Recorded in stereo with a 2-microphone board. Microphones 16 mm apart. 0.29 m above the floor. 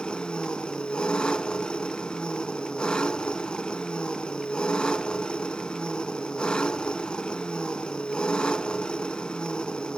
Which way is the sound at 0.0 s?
75° left (ahead or behind).